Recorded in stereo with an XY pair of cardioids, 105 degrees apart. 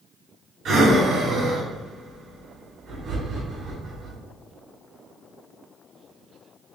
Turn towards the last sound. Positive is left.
turn(degrees=-60)